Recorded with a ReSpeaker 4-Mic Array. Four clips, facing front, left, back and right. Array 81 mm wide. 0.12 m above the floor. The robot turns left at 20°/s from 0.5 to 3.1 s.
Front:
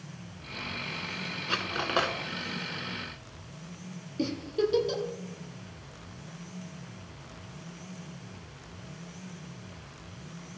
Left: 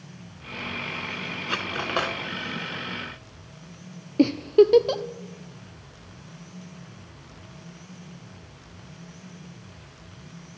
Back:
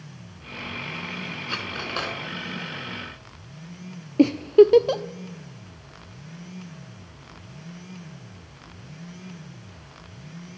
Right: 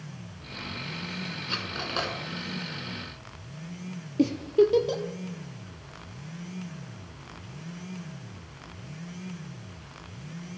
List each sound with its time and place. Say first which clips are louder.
1.5 s cutlery clinking: left 7 dB, front 3 dB; 75° left, 0.8 m; by 2.2 s 60° left, 0.8 m
4.2 s a giggle: left 5 dB, back 15 dB; 150° left, 0.5 m